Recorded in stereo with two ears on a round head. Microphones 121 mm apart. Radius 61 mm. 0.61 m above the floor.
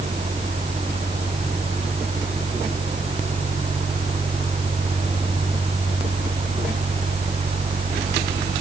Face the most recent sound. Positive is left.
No sound to turn to.